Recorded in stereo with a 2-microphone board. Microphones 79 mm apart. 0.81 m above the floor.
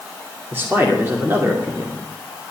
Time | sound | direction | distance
0.5 | a man speaking | 30° right (ahead or behind) | 2.5 m